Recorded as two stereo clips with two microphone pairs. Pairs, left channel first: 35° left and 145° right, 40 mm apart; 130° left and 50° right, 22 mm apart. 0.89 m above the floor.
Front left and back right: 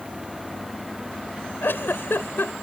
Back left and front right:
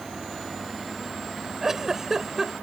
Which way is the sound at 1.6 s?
20° left.